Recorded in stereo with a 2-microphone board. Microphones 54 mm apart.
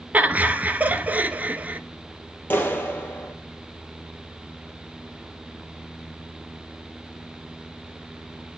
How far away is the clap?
About 2.5 m.